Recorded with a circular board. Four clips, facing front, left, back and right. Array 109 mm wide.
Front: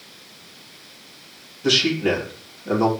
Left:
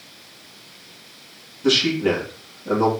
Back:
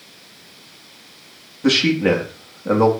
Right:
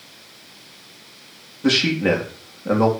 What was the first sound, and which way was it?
A man speaking, 150° right.